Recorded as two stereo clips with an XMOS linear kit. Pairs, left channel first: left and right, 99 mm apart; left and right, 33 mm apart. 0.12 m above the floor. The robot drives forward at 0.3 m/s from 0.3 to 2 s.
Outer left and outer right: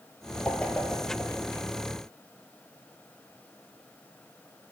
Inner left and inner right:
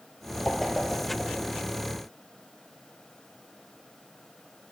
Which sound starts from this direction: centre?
A whoosh, at 0.5 s.